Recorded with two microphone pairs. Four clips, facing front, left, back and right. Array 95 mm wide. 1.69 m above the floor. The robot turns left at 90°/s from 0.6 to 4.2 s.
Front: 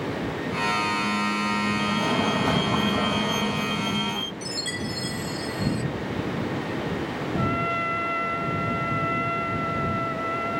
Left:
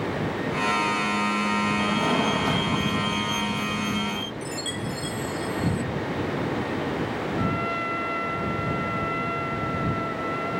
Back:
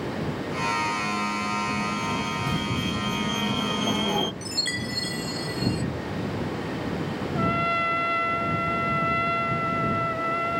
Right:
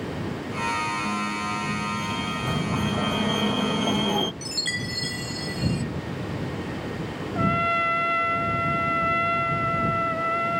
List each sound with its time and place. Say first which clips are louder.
1.8 s a fire alarm: left 6 dB, front 4 dB; 85° left; by 4.3 s 135° right
4.4 s a chime: left 2 dB, front 1 dB; 150° right
7.3 s a trumpet: right 6 dB, back 2 dB; 110° right